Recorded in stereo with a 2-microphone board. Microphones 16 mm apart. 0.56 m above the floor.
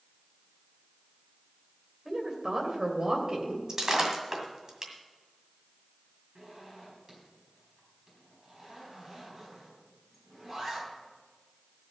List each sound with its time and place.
2.0 s a woman speaking: 35° right (ahead or behind), 2.5 m; by 3.6 s 55° right (ahead or behind), 3 m
3.7 s breaking glass: 40° right (ahead or behind), 1.9 m
6.3 s a zipper: 35° right (ahead or behind), 4.5 m